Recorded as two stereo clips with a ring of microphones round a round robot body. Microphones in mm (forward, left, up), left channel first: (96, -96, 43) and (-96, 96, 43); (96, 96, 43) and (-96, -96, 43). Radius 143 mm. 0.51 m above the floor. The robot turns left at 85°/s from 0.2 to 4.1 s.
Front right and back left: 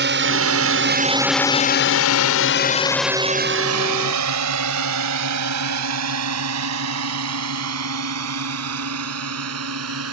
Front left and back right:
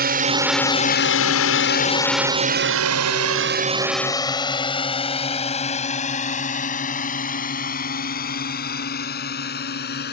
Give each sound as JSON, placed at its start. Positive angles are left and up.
{"t": 0.0, "sound": "a drone", "azimuth_deg": 175}